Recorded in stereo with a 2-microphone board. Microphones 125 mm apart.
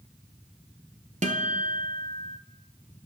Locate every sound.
1.2 s a guitar: 75° right (ahead or behind), 0.8 m